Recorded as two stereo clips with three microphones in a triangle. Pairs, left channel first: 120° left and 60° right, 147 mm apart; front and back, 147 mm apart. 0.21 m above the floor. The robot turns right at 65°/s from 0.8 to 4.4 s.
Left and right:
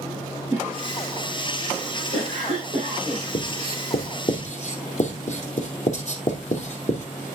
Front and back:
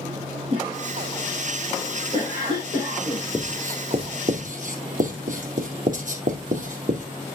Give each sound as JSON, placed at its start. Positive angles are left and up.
{"t": 0.5, "sound": "a cough", "azimuth_deg": -135, "distance_m": 3.5}
{"t": 3.3, "sound": "writing", "azimuth_deg": 85, "distance_m": 2.0}